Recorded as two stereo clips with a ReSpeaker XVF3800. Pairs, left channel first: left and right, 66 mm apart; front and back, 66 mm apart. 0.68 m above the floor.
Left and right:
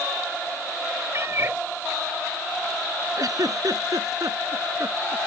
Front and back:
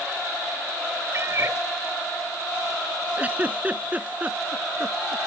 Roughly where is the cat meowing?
Behind right.